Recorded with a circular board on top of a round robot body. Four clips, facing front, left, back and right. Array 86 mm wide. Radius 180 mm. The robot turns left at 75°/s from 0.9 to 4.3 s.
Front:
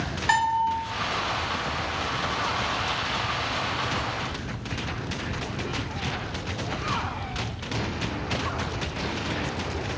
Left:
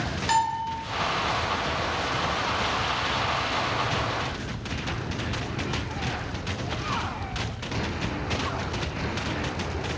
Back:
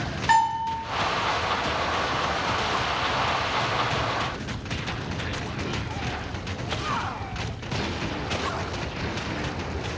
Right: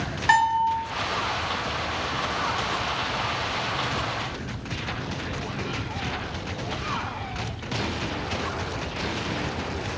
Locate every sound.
0.3 s a bell: 95° right, 1.3 m